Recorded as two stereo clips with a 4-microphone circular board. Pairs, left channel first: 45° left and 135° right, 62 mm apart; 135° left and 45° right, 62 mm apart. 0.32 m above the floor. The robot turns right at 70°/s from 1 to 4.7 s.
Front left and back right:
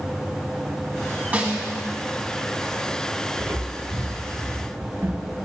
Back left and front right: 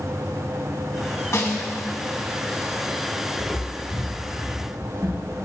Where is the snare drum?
165° left, 2 m; by 1.7 s 165° right, 2 m.